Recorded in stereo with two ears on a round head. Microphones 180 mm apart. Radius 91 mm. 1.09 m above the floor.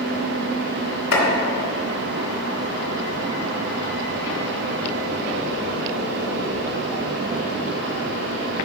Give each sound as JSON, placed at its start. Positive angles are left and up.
{"t": 1.1, "sound": "chopping", "side_deg": 75, "distance_m": 2.5}